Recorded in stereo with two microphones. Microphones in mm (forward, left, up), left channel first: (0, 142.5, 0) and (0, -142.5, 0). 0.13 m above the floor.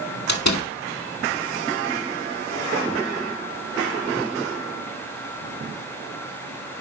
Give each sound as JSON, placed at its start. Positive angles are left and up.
{"t": 0.3, "sound": "a door slam", "side_deg": 70, "distance_m": 2.5}